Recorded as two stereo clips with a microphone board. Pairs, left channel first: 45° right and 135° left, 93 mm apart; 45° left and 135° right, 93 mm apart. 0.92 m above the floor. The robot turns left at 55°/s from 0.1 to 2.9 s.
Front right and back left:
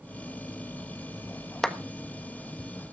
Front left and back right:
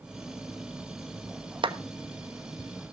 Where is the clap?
130° right, 1.2 m; by 1.8 s 135° right, 1.2 m.